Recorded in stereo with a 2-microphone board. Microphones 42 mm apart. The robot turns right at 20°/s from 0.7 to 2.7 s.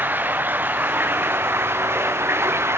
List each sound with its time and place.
0.0 s running water: 130° right, 0.8 m; by 2.8 s 90° right, 0.8 m